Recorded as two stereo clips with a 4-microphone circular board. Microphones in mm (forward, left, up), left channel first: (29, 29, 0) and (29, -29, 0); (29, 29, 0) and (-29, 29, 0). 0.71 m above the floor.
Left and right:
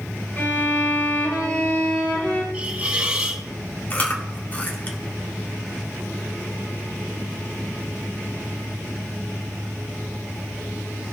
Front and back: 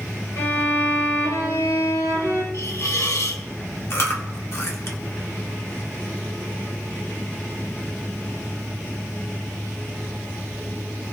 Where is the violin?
30° left, 4.5 m.